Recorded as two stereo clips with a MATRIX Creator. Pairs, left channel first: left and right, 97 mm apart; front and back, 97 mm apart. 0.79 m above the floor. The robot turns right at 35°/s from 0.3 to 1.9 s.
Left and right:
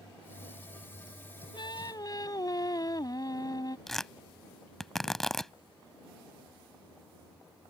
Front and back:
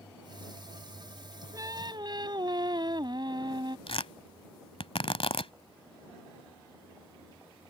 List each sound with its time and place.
1.5 s singing: 125° left; by 3.8 s 140° left
3.9 s tearing paper: 5° left